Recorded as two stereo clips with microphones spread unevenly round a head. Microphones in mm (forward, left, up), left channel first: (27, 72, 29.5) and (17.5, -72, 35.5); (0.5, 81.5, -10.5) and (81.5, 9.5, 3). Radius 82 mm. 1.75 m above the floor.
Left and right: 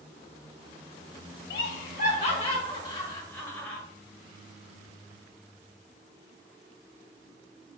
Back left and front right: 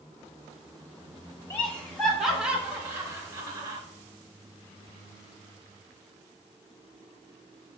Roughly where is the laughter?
Ahead left.